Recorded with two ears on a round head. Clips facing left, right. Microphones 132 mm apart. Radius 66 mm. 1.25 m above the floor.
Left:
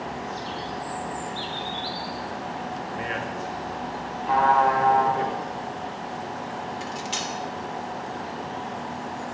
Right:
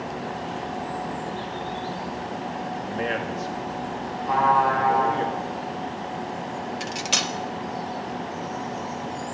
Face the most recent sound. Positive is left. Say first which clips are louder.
# right 2 dB
turn(degrees=-70)  # may be behind; listen again after turning